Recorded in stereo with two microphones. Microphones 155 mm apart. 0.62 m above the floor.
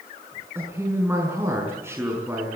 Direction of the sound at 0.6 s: 15° right (ahead or behind).